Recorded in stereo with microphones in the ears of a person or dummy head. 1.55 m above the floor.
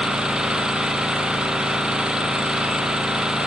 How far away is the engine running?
About 0.9 m.